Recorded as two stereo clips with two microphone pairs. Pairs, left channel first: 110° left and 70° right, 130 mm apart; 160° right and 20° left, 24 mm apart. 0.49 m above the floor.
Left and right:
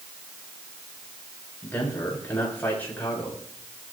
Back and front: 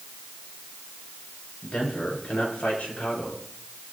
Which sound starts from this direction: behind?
A man speaking, at 1.6 s.